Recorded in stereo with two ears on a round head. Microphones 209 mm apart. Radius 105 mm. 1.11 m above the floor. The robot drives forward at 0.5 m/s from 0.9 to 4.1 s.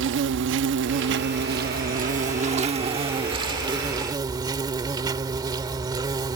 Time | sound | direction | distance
0.0 | an insect | 55° right (ahead or behind) | ?